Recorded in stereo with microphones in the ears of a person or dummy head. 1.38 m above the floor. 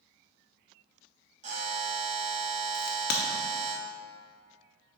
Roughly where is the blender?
No blender in this recording.